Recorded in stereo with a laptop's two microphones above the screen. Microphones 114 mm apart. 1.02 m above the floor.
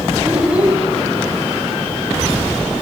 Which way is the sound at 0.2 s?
10° right (ahead or behind).